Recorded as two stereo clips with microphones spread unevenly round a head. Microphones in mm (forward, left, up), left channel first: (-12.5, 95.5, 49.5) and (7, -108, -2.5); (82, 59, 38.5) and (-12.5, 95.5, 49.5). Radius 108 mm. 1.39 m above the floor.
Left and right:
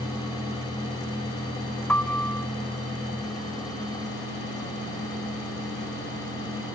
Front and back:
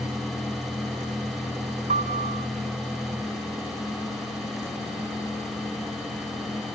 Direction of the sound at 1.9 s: 175° left.